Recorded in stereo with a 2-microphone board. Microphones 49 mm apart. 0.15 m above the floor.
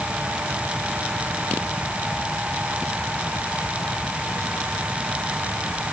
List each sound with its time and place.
Only background noise.